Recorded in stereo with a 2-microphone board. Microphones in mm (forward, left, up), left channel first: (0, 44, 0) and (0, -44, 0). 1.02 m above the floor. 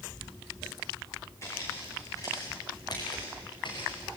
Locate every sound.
1.4 s footsteps: 35° left (ahead or behind), 6.5 m; by 4.1 s 65° left (ahead or behind), 6 m